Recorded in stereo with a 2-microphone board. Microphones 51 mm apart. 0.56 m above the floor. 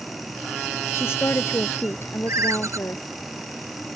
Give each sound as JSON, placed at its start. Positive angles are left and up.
{"t": 0.9, "sound": "a woman speaking", "side_deg": 55}
{"t": 2.3, "sound": "a ringtone", "side_deg": -75}